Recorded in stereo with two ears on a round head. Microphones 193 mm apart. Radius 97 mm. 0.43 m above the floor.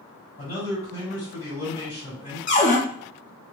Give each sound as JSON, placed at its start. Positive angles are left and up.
{"t": 0.4, "sound": "a man speaking", "side_deg": 35, "distance_m": 1.8}
{"t": 2.5, "sound": "a cupboard door", "side_deg": 35, "distance_m": 0.7}